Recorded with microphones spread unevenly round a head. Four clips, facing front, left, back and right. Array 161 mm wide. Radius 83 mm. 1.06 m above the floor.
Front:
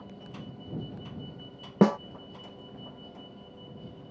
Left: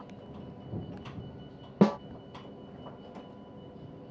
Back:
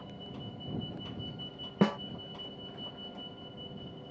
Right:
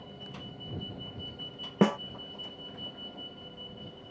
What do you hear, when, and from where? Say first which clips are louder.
1.8 s a snare drum: left 1 dB, front 6 dB; 5° left